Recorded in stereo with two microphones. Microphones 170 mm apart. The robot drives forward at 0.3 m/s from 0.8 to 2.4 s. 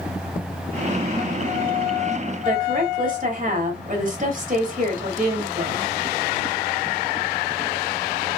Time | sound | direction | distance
2.5 | a woman speaking | 45° right (ahead or behind) | 1.6 m